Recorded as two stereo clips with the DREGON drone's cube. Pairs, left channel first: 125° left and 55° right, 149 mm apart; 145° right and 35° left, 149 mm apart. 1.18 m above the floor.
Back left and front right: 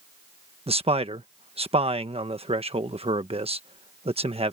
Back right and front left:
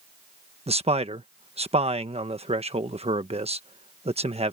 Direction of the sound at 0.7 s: 10° right.